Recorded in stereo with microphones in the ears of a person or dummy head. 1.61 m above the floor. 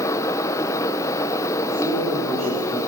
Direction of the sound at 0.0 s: 15° left (ahead or behind).